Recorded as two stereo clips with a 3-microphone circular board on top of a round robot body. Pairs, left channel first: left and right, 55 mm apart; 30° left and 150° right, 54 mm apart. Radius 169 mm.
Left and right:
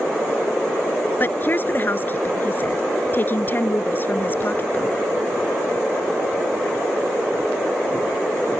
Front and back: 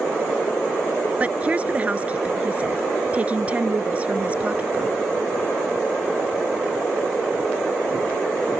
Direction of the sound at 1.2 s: 145° left.